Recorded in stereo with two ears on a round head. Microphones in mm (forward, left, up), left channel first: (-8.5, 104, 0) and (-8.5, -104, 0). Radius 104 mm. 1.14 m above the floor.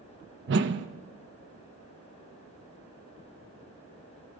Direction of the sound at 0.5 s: 50° right (ahead or behind).